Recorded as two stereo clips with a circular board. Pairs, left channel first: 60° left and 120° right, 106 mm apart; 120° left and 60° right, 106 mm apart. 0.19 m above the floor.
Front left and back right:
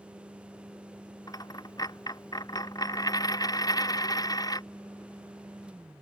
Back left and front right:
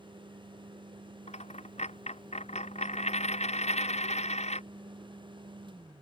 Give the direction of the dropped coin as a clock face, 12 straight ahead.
8 o'clock.